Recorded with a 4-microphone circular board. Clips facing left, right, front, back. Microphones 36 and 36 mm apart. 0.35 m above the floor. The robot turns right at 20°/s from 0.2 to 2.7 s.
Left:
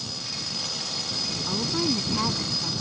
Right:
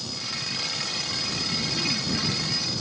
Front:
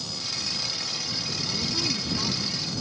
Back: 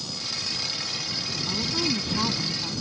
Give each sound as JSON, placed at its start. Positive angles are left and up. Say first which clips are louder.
{"t": 1.5, "sound": "a woman speaking", "louder": "left 4 dB, back 3 dB", "azimuth_deg": 110}